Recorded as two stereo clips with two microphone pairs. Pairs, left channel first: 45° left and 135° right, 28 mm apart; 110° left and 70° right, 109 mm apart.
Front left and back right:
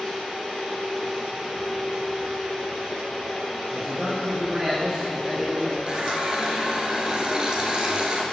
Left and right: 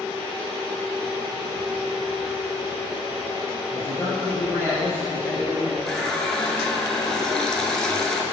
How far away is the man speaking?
About 1.6 m.